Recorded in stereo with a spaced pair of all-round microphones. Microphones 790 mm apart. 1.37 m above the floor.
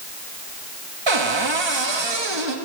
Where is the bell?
No bell in this recording.